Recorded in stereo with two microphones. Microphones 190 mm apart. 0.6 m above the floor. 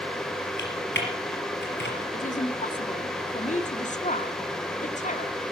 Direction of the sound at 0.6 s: 90° left.